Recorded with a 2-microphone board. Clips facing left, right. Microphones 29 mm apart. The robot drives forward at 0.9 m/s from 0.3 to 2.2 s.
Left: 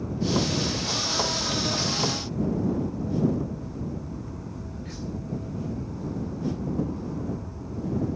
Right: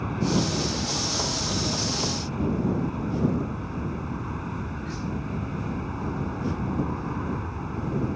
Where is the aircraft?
55° right (ahead or behind).